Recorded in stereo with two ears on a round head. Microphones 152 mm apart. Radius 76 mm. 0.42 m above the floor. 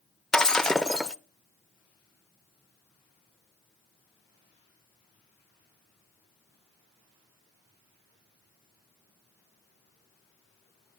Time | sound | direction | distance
0.3 | breaking glass | 5° left (ahead or behind) | 0.5 m